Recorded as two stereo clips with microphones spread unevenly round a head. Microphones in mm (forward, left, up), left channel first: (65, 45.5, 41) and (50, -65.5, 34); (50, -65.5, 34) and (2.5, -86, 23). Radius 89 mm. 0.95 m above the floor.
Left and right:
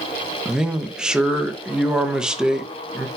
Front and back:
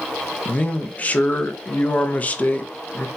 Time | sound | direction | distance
0.5 | a man speaking | 30° right | 0.6 m